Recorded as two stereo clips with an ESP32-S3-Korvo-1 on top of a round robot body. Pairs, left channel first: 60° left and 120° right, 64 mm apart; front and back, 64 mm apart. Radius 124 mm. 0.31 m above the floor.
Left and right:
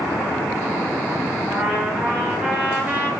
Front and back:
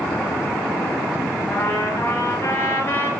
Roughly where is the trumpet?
Ahead right.